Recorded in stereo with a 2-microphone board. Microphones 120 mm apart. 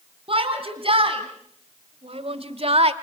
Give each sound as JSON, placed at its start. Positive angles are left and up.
{"t": 0.3, "sound": "a shout", "side_deg": -50, "distance_m": 4.5}